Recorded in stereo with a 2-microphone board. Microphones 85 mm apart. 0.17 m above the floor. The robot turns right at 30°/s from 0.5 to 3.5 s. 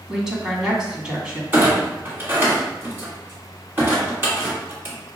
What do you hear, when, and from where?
0.1 s a woman speaking: 5° right (ahead or behind), 1.2 m; by 1.4 s 15° right (ahead or behind), 1.2 m
1.5 s a clunk: 20° right (ahead or behind), 1.8 m; by 5.0 s 30° right (ahead or behind), 1.8 m